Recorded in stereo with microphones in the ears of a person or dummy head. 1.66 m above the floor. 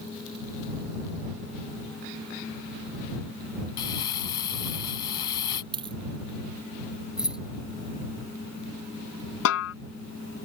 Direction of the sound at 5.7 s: 25° right (ahead or behind).